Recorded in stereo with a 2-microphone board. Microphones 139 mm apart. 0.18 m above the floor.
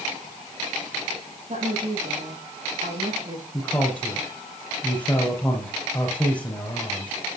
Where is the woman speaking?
65° right (ahead or behind), 7 m.